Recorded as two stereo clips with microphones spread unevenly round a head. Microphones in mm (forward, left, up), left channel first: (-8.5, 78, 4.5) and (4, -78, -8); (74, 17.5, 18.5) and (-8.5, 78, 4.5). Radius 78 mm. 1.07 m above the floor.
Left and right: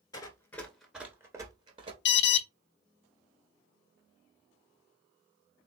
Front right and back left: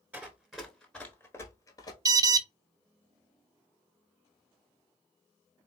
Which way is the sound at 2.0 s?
85° left.